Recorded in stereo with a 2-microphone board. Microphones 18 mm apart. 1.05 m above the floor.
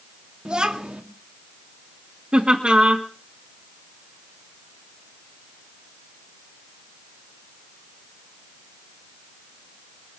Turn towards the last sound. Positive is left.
turn(degrees=-65)  # may be behind; listen again after turning